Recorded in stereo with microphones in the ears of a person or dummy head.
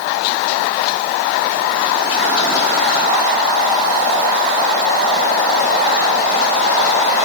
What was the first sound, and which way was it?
Only background noise.